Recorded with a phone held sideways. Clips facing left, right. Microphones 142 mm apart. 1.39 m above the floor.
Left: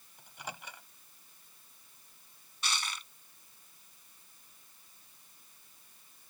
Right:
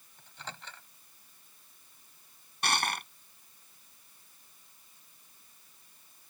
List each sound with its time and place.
0.2 s a microwave: 10° left (ahead or behind)
2.6 s crushing: 60° right (ahead or behind)